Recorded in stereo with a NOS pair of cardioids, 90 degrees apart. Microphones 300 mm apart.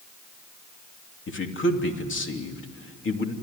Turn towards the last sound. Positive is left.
turn(degrees=40)